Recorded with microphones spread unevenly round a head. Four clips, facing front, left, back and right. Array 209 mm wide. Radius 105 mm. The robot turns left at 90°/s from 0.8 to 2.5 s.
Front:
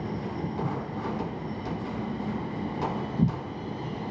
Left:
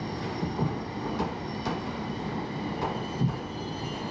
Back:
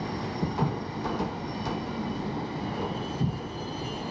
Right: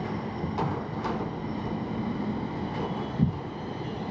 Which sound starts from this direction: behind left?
Footsteps, at 0.4 s.